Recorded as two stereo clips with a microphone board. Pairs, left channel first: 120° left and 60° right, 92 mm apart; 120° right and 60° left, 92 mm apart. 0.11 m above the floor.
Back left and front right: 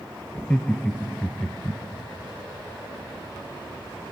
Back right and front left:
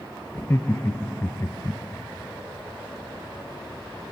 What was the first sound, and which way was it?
Laughter, 175° right.